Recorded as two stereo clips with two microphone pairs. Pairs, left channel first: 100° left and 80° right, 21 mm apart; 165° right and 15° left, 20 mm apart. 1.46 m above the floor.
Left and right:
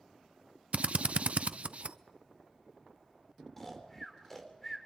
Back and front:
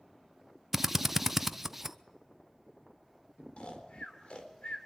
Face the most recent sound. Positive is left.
turn(degrees=180)